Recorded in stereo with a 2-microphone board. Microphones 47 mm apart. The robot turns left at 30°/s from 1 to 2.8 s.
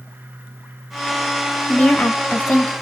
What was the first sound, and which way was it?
A woman speaking, 115° left.